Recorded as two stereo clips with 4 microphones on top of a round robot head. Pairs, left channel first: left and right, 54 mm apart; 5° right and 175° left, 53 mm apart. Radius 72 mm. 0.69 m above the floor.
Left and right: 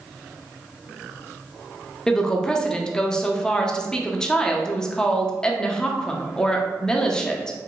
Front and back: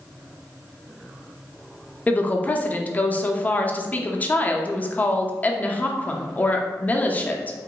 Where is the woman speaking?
25° left, 0.6 m.